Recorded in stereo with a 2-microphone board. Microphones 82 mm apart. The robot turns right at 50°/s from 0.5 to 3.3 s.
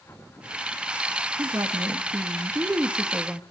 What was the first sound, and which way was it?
A woman speaking, 115° right.